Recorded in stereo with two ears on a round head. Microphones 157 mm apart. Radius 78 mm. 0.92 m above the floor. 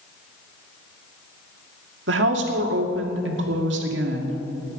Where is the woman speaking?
75° right (ahead or behind), 2 m.